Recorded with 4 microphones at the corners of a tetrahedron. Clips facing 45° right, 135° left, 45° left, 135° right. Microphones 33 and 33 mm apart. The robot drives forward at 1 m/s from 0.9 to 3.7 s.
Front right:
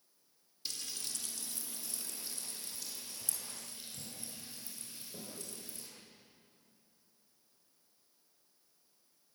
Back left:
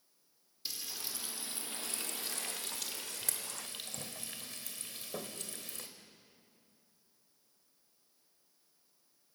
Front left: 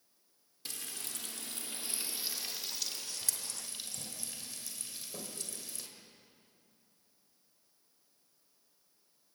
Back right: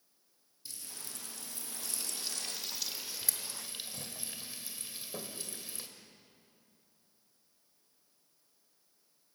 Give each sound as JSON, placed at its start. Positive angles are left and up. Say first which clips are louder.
{"t": 0.7, "sound": "frying", "louder": "back left 1 dB, front left 4 dB", "azimuth_deg": 50, "distance_m": 1.3}